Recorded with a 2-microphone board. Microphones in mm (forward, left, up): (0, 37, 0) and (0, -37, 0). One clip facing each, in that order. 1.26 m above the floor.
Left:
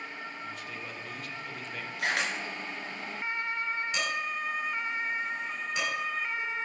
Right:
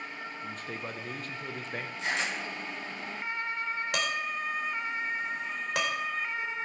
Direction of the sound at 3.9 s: 75° right (ahead or behind).